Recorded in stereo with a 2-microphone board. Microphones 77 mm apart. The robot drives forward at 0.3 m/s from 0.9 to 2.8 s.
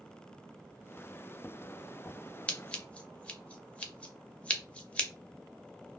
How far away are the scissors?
About 0.6 m.